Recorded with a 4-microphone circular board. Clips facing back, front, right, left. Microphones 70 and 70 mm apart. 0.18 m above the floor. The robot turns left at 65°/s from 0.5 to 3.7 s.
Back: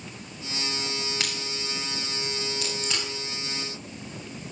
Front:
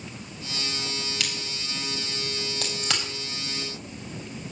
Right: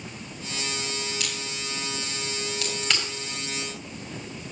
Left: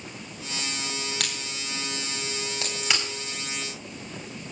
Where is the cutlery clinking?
I don't hear cutlery clinking.